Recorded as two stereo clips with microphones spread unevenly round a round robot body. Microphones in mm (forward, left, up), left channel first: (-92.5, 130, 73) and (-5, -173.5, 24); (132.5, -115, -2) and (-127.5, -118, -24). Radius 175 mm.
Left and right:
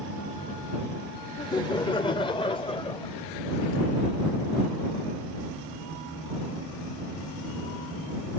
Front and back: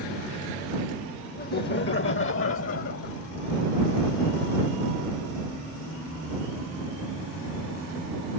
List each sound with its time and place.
1.4 s laughter: 25° left; by 3.1 s 30° left